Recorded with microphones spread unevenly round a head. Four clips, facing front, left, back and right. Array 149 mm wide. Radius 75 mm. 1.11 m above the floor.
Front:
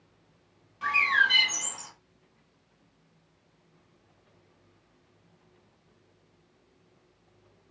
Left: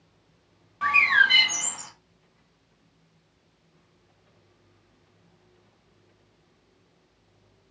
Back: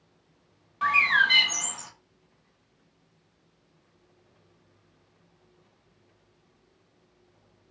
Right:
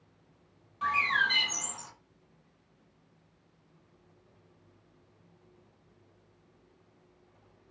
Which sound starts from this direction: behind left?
A bird, at 0.8 s.